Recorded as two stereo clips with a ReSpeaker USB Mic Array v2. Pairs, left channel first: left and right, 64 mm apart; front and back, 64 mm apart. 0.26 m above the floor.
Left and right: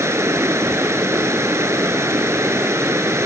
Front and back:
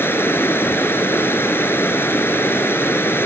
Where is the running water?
50° right.